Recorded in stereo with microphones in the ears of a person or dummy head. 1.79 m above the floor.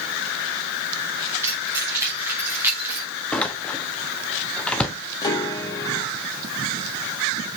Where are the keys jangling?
15° right (ahead or behind), 4 m; by 3.1 s 10° right (ahead or behind), 3 m.